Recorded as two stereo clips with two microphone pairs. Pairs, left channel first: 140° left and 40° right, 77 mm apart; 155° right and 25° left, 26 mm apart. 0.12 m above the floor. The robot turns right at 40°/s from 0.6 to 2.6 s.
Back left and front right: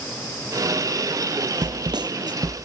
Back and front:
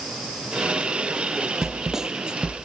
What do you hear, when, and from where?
1.6 s a snare drum: 60° right, 0.7 m; by 2.6 s 20° right, 0.7 m